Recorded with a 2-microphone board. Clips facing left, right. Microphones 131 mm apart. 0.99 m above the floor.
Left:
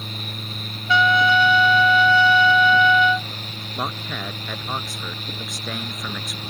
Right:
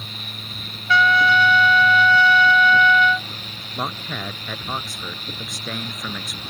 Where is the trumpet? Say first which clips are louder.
Even; 20° left (ahead or behind).